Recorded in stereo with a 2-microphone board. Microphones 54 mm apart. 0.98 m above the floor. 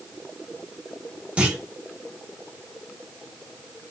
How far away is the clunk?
About 1.2 m.